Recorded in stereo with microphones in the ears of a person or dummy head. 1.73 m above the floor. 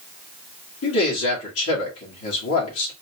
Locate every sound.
0.8 s a man speaking: 85° left, 1.9 m